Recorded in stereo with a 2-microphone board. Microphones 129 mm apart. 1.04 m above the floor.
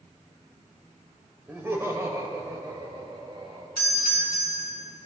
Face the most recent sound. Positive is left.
turn(degrees=-65)  # may be behind; listen again after turning